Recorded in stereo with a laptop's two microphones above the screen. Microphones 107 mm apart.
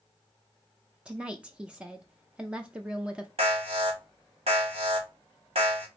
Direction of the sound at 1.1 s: 10° right (ahead or behind).